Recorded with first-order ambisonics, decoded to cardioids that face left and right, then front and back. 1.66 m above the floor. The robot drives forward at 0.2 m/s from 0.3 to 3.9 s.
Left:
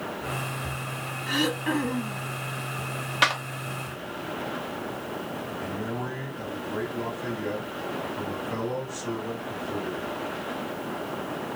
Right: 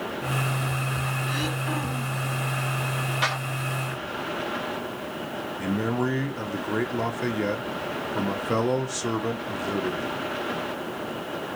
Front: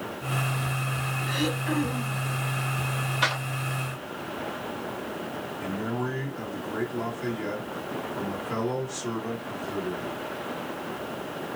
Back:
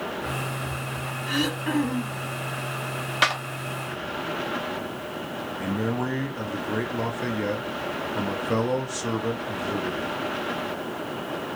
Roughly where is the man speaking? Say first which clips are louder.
Right 9 dB, back 3 dB; behind right.